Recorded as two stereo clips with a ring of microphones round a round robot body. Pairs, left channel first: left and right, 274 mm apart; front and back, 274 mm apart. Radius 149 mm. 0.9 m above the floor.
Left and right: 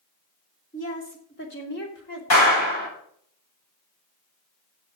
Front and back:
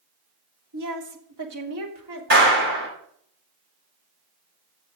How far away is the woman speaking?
About 2.5 m.